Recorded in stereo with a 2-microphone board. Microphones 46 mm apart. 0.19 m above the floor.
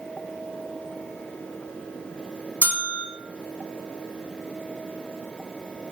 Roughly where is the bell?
Left.